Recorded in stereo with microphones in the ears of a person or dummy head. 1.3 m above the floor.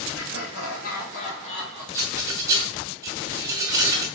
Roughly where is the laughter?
Left.